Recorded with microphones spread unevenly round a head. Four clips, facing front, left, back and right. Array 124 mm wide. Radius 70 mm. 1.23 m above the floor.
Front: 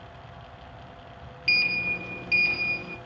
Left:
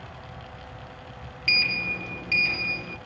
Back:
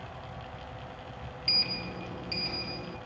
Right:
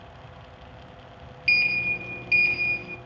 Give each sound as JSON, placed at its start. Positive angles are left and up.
{"t": 1.5, "sound": "a sliding door", "azimuth_deg": 35, "distance_m": 1.7}